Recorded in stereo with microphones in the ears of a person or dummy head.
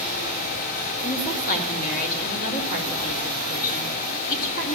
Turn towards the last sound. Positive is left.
turn(degrees=50)  # may be behind; listen again after turning